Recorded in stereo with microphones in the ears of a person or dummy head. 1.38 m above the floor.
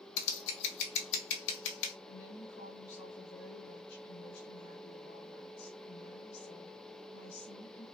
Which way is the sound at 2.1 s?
80° left.